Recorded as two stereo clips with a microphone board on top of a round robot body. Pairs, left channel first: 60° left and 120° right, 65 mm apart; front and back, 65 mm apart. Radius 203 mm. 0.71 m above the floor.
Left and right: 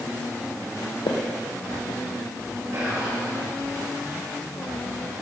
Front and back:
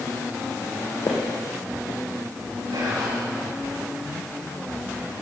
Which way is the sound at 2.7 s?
165° right.